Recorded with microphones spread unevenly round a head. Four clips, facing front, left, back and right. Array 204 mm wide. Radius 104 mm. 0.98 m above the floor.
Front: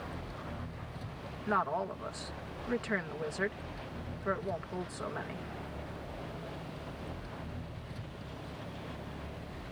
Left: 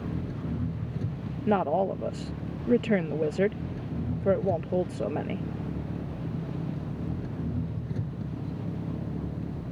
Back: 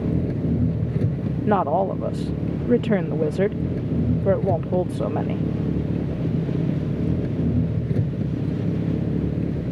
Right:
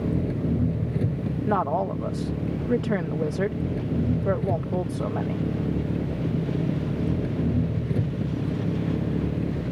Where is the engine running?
155° right.